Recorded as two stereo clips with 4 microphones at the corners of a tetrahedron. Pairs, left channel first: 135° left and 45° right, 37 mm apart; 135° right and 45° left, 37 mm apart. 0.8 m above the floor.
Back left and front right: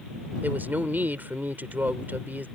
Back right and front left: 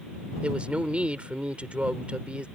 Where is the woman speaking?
10° right.